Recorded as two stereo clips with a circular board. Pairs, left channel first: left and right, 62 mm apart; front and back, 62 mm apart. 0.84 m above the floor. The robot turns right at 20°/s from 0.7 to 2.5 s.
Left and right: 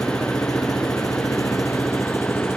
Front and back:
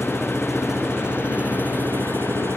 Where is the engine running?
100° left; by 2.6 s 135° left.